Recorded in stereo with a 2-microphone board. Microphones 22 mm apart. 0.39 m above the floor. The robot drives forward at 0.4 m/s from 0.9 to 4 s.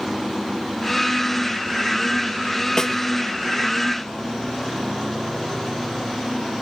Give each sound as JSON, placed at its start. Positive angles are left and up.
{"t": 2.8, "sound": "a snare drum", "side_deg": 25, "distance_m": 2.0}